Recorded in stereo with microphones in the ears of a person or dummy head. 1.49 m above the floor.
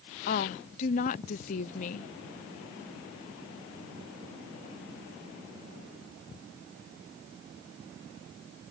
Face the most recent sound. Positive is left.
turn(degrees=45)  # may be behind; listen again after turning